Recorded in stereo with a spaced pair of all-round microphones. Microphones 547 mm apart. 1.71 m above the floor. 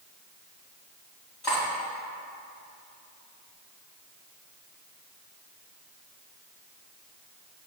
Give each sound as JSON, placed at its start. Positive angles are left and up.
{"t": 1.4, "sound": "cutlery clinking", "side_deg": 45, "distance_m": 2.0}